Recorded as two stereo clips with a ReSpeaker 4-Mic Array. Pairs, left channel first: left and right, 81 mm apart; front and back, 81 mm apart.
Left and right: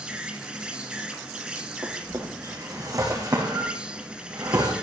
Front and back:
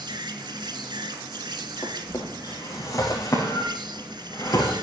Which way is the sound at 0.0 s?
170° right.